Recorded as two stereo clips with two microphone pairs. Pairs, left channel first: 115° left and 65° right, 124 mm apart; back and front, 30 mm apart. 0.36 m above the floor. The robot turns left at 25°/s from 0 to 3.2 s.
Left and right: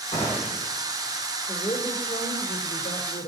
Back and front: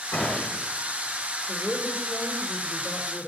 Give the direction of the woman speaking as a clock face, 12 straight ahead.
7 o'clock.